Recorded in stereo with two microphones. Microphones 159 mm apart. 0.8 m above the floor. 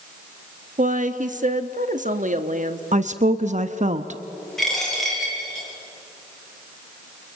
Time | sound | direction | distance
0.8 | a woman speaking | 55° right (ahead or behind) | 1.3 m
2.9 | a woman speaking | 50° right (ahead or behind) | 0.7 m
4.6 | a dropped coin | 5° left (ahead or behind) | 7 m